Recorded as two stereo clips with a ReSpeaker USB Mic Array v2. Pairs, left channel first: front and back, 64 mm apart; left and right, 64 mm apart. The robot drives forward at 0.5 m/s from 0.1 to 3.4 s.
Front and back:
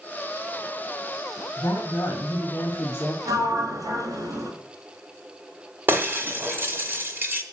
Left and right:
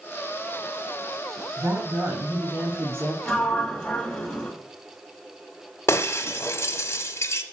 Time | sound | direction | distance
1.6 | a woman speaking | 35° right | 2 m
3.2 | a sliding door | 175° left | 2.0 m
5.9 | breaking glass | 130° left | 1.3 m